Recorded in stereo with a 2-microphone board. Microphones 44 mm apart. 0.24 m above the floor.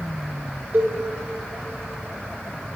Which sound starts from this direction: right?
A cowbell, at 0.7 s.